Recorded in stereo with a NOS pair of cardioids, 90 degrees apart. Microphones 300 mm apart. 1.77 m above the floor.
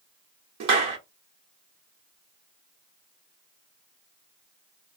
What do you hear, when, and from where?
0.6 s a clap: 60° right, 1.1 m